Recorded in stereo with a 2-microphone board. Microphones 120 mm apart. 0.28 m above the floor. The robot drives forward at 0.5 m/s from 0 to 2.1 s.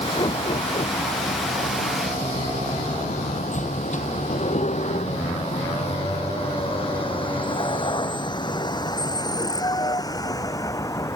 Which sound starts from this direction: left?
A vehicle, at 0.0 s.